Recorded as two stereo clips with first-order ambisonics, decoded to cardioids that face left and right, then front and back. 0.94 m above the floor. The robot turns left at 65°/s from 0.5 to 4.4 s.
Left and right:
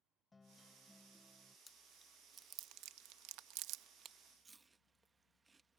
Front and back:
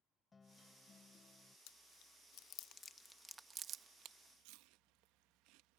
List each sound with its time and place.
0.3 s a guitar: 40° left; by 1.6 s 30° right
1.7 s chewing: 10° left; by 5.8 s 165° right